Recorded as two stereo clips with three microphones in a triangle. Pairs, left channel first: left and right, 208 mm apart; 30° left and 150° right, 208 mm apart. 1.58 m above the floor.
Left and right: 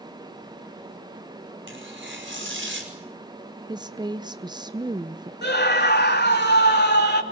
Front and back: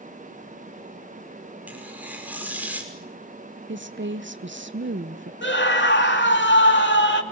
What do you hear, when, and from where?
1.7 s tearing paper: 65° right, 5.5 m
3.7 s a woman speaking: 160° right, 0.9 m
5.4 s a scream: 55° left, 2.5 m